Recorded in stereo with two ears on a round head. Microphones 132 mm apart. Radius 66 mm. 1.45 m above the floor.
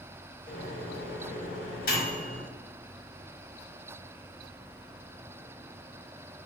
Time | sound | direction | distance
0.5 | a microwave | 65° left (ahead or behind) | 1.5 m